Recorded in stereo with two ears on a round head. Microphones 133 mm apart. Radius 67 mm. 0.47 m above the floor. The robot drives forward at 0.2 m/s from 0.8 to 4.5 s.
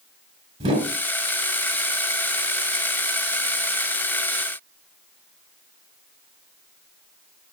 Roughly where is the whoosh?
Right.